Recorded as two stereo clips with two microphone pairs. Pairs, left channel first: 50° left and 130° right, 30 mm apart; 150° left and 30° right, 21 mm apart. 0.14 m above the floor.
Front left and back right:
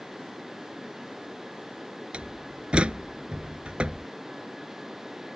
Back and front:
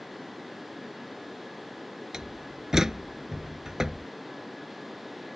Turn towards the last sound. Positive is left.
turn(degrees=-90)